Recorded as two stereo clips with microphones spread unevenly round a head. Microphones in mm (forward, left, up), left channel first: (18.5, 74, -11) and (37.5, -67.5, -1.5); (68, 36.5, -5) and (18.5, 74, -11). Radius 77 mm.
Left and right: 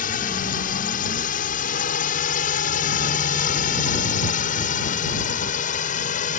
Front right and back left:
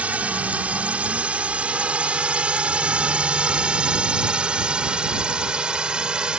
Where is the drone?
80° left; by 6.4 s 70° left.